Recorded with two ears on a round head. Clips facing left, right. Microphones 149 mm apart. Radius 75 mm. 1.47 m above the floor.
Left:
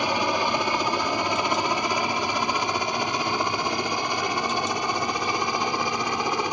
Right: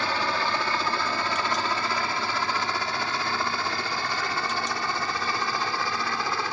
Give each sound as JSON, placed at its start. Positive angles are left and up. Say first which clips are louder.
{"t": 0.0, "sound": "a helicopter", "louder": "left 4 dB", "side_deg": 15}